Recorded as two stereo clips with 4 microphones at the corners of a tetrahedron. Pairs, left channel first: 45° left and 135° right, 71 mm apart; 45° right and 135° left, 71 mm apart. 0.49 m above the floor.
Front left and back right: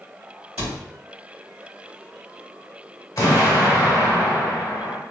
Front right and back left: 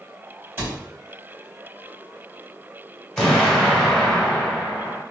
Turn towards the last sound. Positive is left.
turn(degrees=30)